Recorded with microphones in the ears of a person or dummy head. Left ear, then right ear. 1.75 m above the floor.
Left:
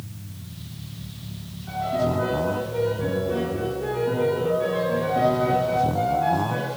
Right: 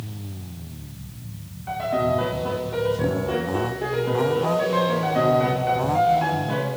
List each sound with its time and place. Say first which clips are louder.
1.7 s a piano: right 2 dB; 35° right (ahead or behind), 1.4 m